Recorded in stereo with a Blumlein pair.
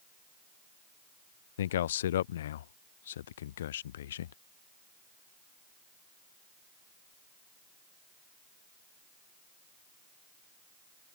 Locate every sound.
1.6 s a man speaking: 60° left